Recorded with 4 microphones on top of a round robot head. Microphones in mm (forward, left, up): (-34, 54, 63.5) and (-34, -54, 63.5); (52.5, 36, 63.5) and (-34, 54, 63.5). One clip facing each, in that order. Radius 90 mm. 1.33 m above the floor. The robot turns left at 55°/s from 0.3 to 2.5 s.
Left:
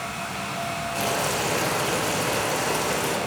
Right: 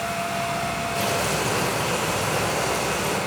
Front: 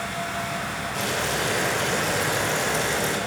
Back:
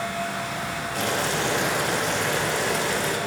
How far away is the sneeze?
I don't hear a sneeze.